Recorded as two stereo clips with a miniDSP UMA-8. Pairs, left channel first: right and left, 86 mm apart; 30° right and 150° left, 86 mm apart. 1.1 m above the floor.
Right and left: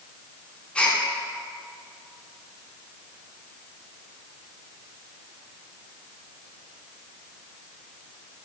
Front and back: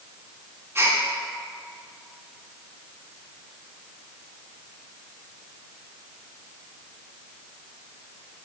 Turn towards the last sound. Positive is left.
turn(degrees=-165)